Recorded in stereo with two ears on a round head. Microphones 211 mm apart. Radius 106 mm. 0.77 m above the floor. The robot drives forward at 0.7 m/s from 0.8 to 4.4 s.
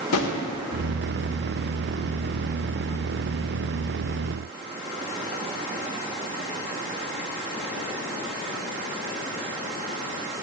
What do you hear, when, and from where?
0.1 s a drawer: 70° left (ahead or behind), 1.3 m